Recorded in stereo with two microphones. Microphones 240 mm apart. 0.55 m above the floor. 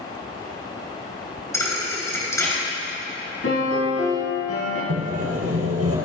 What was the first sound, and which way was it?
A thud, 10° left (ahead or behind).